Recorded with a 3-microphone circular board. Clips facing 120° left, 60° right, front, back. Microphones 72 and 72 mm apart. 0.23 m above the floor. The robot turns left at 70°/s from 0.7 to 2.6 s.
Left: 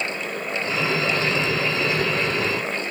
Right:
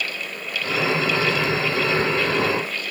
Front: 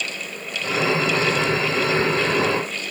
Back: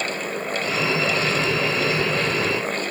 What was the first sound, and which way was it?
Only background noise.